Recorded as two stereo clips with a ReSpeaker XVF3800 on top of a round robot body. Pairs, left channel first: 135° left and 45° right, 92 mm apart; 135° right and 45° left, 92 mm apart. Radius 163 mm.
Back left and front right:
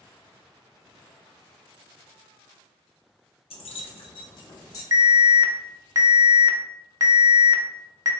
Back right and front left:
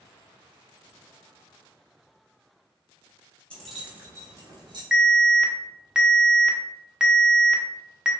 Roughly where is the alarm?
Ahead right.